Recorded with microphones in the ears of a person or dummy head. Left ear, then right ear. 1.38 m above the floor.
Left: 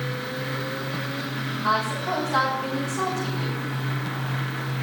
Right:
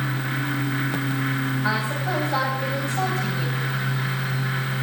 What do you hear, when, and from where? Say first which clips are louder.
1.6 s a woman speaking: left 4 dB; 30° right (ahead or behind), 10 m